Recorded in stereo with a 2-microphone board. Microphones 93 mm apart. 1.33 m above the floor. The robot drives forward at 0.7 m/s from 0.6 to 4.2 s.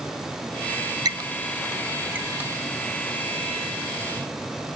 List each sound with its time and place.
1.1 s a squeak: 45° right (ahead or behind); by 2.5 s 15° right (ahead or behind)